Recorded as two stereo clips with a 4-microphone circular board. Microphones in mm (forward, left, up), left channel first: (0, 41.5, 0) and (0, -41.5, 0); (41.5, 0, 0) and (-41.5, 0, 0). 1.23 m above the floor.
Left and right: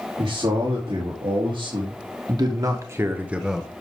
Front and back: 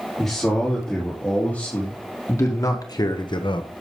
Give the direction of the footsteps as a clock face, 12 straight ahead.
I don't hear footsteps.